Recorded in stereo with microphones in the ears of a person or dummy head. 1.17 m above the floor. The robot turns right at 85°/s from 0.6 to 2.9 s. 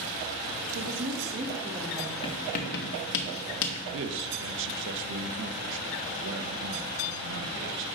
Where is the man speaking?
70° right (ahead or behind), 0.8 m.